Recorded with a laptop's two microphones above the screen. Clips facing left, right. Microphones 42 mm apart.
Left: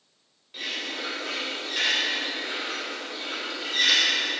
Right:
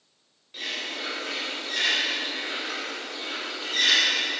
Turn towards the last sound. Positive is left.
turn(degrees=5)  # may be behind; listen again after turning